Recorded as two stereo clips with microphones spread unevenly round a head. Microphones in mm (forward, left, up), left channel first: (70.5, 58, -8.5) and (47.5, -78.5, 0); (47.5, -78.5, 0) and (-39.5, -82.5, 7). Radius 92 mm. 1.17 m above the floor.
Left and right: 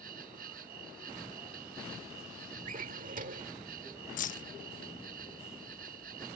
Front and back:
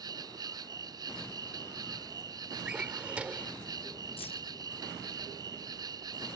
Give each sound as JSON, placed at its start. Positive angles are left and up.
{"t": 0.0, "sound": "an insect", "azimuth_deg": -140}
{"t": 2.6, "sound": "a drawer", "azimuth_deg": -105}
{"t": 4.2, "sound": "keys jangling", "azimuth_deg": 50}